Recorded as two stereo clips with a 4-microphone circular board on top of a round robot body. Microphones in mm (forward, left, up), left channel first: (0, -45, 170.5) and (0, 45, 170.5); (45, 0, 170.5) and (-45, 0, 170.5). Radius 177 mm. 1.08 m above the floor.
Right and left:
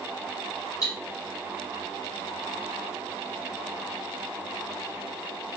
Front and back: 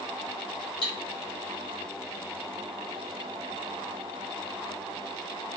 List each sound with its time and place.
0.8 s cutlery clinking: 35° right, 1.6 m